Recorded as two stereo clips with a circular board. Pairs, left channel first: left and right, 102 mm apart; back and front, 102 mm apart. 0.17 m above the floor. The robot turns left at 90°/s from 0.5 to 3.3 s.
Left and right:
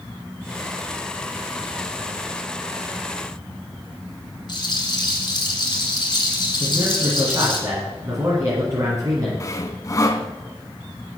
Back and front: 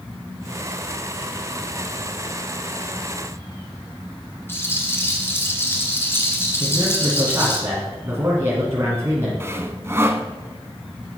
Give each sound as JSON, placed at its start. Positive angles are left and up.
{"t": 4.5, "sound": "a rattle", "azimuth_deg": 120, "distance_m": 1.9}
{"t": 6.6, "sound": "a man speaking", "azimuth_deg": -50, "distance_m": 1.9}
{"t": 9.4, "sound": "sawing", "azimuth_deg": 50, "distance_m": 0.6}